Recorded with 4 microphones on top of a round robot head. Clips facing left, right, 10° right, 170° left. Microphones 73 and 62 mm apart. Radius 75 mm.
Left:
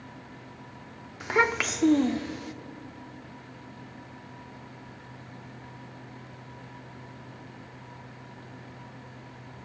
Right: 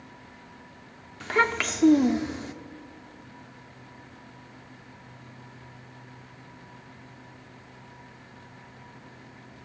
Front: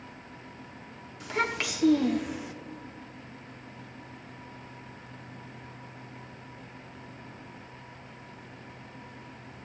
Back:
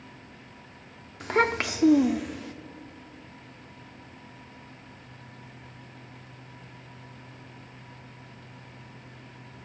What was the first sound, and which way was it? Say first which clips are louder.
A child speaking: even, back 6 dB; 160° left.